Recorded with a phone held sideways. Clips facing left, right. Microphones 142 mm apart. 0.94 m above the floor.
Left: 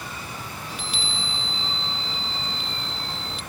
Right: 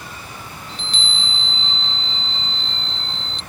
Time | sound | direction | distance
0.7 | a chime | 10° left (ahead or behind) | ?